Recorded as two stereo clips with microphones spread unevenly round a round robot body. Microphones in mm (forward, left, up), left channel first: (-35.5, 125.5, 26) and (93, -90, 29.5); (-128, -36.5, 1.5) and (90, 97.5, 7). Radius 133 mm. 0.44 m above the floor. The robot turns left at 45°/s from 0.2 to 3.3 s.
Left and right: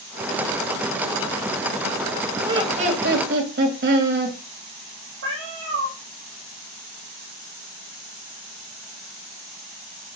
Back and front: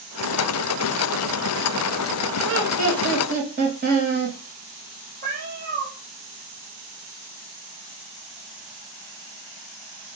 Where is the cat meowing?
25° right, 2.5 m.